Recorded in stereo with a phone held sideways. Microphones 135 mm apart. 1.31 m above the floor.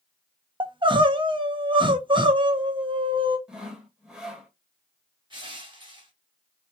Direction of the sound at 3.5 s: 5° right (ahead or behind).